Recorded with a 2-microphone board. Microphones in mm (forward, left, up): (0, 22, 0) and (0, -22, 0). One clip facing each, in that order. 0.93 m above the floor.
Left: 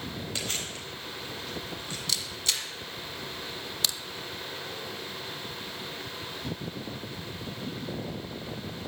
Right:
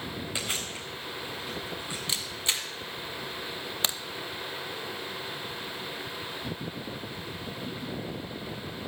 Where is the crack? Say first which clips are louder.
Right 1 dB; 30° right (ahead or behind), 0.7 m.